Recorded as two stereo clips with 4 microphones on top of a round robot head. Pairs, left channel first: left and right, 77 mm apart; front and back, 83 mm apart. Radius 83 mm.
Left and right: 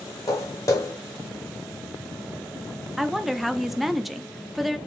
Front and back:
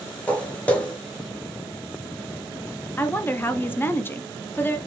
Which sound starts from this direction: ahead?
A woman speaking, at 3.0 s.